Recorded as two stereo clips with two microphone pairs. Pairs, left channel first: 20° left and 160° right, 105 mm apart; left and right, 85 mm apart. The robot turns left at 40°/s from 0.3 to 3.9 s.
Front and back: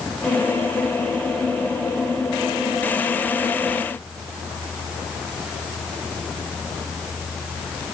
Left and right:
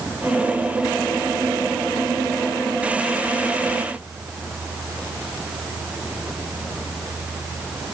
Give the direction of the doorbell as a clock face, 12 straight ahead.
I don't hear a doorbell.